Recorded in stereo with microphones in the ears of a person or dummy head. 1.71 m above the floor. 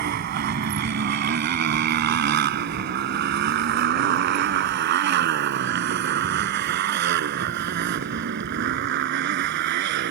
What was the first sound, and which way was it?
A motorcycle, 55° right (ahead or behind).